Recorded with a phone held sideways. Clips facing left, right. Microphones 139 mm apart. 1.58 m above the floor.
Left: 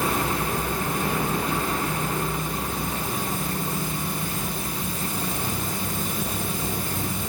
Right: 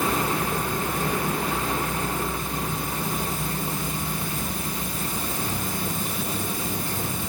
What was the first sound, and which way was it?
Only background noise.